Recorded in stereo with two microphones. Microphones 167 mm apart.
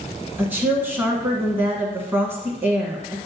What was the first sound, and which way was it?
A woman speaking, 15° right (ahead or behind).